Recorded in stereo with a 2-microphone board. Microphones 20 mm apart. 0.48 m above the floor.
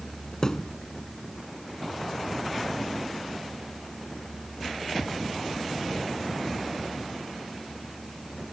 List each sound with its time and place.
0.4 s a thud: 35° left (ahead or behind)